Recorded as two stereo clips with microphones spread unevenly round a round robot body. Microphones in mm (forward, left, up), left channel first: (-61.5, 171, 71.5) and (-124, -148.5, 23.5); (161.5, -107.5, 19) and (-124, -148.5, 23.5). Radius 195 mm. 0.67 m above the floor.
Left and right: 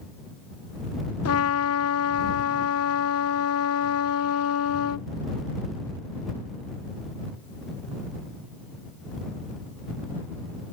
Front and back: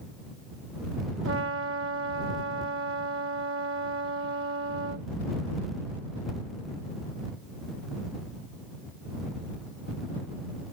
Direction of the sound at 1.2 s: 125° left.